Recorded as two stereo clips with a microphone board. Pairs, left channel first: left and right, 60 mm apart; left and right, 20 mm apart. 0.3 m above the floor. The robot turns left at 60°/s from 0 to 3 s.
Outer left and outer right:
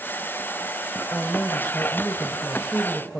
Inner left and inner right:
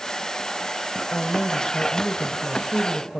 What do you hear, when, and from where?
1.1 s a woman speaking: 145° left, 1.3 m; by 3.2 s 30° left, 1.3 m